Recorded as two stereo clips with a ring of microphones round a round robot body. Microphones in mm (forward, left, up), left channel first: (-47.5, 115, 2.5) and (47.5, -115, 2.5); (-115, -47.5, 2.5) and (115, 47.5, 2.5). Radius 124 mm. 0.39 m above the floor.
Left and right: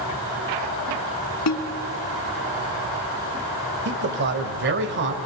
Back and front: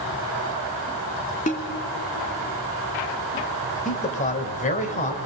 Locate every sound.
1.5 s a snare drum: 140° left, 3 m
3.9 s a man speaking: 105° right, 2 m